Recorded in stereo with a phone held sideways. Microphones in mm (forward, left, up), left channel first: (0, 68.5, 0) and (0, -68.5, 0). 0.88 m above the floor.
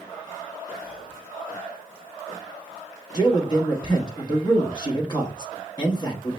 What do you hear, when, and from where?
0.8 s whispering: 65° left (ahead or behind), 2 m
3.1 s a man speaking: 30° left (ahead or behind), 1.0 m